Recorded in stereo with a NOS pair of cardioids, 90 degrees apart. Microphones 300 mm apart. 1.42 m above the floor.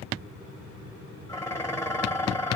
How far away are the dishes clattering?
About 1.3 m.